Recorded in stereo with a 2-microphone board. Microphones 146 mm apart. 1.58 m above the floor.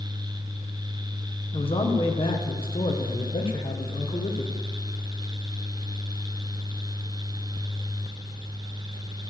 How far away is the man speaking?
About 1.2 m.